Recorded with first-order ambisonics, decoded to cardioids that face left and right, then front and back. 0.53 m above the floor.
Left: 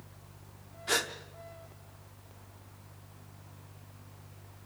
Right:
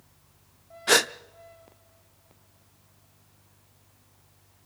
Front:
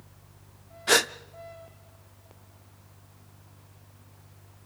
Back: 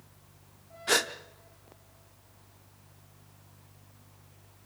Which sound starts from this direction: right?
A gasp, at 0.9 s.